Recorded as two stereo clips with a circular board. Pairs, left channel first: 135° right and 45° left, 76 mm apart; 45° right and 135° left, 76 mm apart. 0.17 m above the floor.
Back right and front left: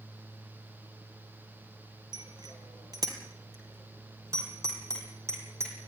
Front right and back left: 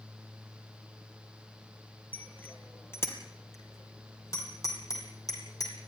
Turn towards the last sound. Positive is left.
turn(degrees=-5)